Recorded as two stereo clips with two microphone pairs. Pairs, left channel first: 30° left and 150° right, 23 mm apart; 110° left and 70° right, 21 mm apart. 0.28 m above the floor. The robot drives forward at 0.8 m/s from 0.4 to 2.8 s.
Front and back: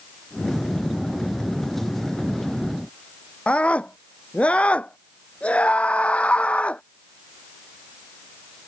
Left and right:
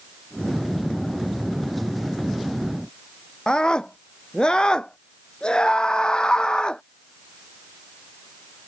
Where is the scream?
60° left.